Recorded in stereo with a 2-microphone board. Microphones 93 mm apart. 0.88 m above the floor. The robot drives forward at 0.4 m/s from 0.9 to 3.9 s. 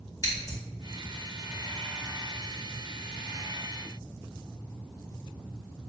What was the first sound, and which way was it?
Scissors, 40° left (ahead or behind).